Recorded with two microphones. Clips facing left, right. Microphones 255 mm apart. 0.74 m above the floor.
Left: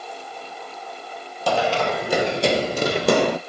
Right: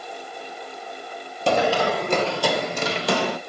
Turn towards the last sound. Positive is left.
turn(degrees=60)  # may be behind; listen again after turning